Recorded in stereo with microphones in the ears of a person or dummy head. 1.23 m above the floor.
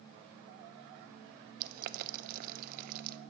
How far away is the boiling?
About 0.6 m.